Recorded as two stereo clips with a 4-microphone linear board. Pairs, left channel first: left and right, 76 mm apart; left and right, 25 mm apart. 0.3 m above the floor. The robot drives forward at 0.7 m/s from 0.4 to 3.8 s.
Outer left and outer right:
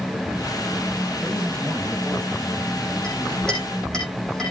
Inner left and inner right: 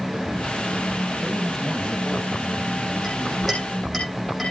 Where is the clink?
10° left (ahead or behind), 7.5 m.